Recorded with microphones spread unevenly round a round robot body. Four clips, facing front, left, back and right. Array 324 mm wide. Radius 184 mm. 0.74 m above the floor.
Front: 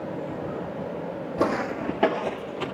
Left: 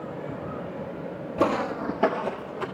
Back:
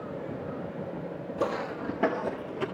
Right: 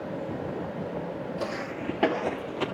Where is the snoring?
No snoring in this recording.